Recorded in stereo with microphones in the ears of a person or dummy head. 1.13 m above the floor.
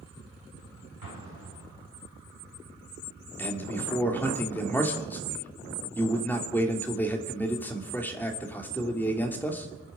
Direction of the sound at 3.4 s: 10° left (ahead or behind).